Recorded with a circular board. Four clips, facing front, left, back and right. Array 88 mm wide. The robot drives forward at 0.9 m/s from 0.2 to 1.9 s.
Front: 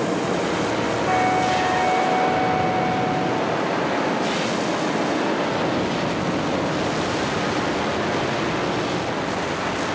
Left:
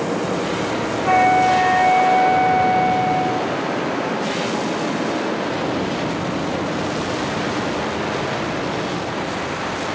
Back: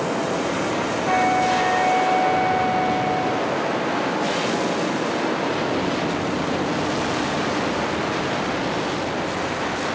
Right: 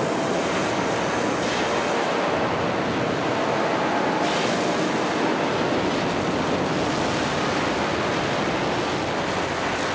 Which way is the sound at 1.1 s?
100° left.